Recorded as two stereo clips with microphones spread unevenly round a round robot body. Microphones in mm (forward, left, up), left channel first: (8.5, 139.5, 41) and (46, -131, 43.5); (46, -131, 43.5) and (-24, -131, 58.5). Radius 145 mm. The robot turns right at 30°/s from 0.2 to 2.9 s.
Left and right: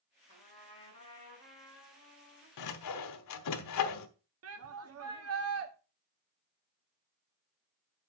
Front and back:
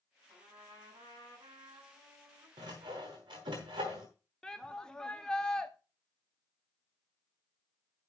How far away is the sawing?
About 1.0 m.